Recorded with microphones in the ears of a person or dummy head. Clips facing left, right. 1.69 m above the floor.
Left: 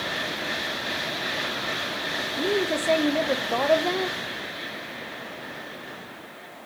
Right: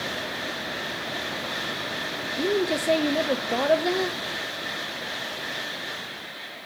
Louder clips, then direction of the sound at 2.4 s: Right 1 dB; 10° right (ahead or behind).